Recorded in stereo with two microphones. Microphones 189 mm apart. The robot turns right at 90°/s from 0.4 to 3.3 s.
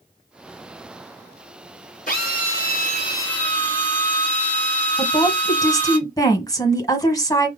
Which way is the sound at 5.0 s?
20° left (ahead or behind).